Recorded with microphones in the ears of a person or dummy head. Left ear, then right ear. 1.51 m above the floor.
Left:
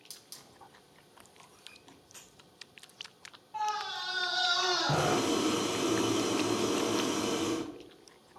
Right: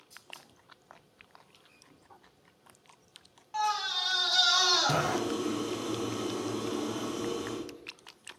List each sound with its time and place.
0.1 s a hiss: 60° left (ahead or behind), 2.5 m
1.9 s a microwave: 55° left (ahead or behind), 2 m
3.5 s a scream: 50° right (ahead or behind), 1.9 m
4.9 s boiling: 80° left, 3.5 m